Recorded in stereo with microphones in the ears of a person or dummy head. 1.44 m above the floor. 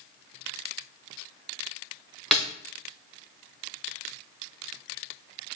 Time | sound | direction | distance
2.3 | a snare drum | centre (ahead or behind) | 0.6 m